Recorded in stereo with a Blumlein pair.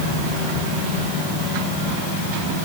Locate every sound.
Only background noise.